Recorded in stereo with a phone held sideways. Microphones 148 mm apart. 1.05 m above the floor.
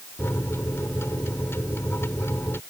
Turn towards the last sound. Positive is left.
turn(degrees=15)  # may be behind; listen again after turning